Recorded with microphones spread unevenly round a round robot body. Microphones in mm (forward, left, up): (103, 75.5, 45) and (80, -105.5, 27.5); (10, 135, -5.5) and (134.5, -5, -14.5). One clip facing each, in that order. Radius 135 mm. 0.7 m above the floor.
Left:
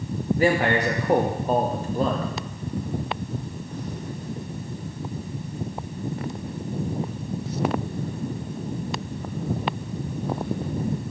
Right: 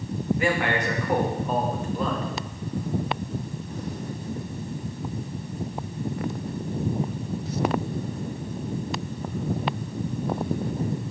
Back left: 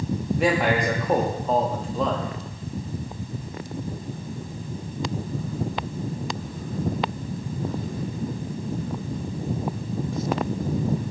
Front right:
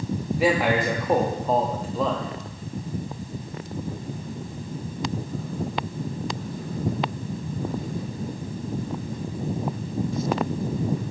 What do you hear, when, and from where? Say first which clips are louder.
0.4 s a man speaking: left 6 dB, front right 1 dB; 35° left, 0.9 m